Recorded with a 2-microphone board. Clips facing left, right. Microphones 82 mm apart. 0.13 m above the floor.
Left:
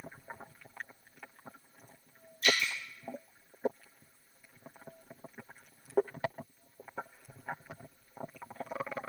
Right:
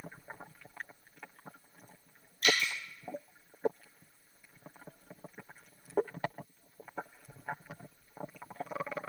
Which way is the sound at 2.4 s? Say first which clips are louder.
Even; 70° right (ahead or behind).